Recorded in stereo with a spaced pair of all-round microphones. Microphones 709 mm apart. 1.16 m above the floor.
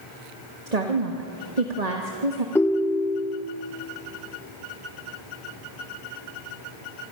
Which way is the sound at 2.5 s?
5° left (ahead or behind).